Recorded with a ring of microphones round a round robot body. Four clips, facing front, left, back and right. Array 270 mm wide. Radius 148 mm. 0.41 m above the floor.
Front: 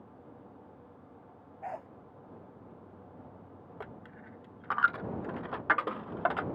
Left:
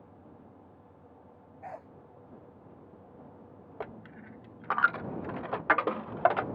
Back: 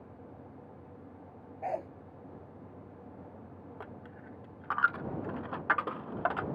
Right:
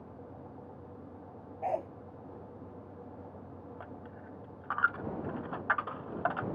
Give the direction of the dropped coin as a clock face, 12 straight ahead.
9 o'clock.